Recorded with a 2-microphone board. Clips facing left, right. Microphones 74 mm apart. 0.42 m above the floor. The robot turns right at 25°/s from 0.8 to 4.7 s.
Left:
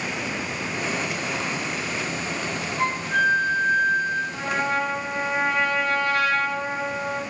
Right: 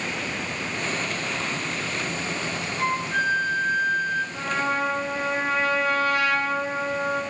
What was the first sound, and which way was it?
A flute, 90° left.